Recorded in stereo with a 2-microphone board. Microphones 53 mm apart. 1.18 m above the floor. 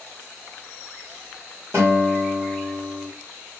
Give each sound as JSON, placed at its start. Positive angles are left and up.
{"t": 1.7, "sound": "a guitar", "side_deg": -45, "distance_m": 3.5}